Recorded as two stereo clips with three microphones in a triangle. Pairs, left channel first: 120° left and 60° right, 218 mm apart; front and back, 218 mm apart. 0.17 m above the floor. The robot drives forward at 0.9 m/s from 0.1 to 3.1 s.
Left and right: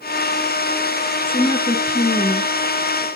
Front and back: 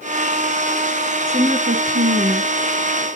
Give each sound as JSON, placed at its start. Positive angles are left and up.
{"t": 1.3, "sound": "a woman speaking", "azimuth_deg": 160, "distance_m": 1.4}